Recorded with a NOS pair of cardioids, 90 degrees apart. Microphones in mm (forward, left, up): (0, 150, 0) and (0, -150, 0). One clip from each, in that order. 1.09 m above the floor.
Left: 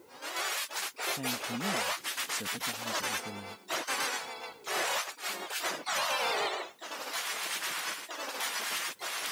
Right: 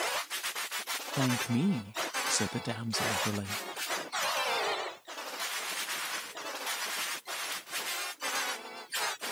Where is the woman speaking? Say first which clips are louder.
Right 4 dB; 55° right.